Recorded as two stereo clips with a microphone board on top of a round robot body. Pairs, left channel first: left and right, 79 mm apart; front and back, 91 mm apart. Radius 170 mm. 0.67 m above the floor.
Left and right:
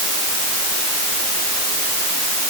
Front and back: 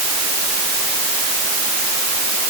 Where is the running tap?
No running tap in this recording.